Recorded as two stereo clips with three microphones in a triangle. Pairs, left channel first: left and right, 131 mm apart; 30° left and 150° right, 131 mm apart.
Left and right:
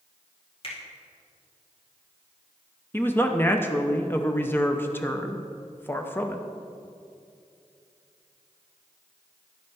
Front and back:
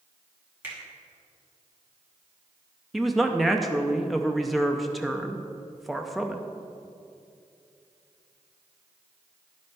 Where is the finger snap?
135° left, 2.5 m.